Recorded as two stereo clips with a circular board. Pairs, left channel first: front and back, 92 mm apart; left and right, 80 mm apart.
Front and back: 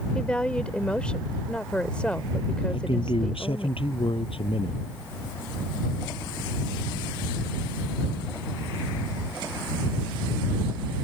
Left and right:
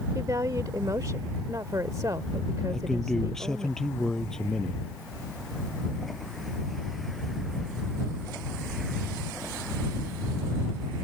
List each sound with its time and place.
0.1 s a woman speaking: 75° right
2.7 s a man speaking: 5° left